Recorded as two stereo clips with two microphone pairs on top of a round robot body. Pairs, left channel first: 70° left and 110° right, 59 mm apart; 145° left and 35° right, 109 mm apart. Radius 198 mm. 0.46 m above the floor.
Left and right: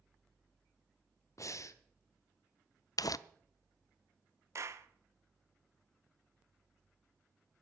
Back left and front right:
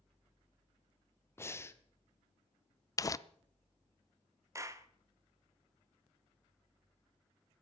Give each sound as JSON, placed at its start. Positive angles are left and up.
{"t": 1.4, "sound": "breathing", "azimuth_deg": 85, "distance_m": 1.3}
{"t": 3.0, "sound": "crumpling", "azimuth_deg": 85, "distance_m": 0.6}
{"t": 4.5, "sound": "a clap", "azimuth_deg": -90, "distance_m": 1.4}